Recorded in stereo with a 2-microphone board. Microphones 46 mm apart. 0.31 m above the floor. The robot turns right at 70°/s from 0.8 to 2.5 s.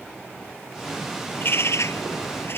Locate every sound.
1.3 s a bird: 45° left; by 2.6 s 125° left